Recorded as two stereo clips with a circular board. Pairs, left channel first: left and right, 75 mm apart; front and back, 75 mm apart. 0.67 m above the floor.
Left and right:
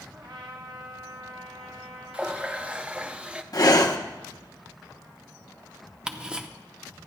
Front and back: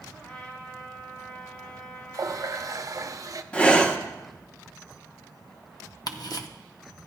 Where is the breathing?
70° left, 0.9 m.